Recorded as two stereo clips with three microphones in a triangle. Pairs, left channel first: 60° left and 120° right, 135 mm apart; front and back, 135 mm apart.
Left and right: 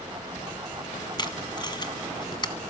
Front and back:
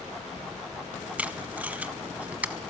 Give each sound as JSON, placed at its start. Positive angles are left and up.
{"t": 1.2, "sound": "tape being pulled", "azimuth_deg": 105, "distance_m": 0.6}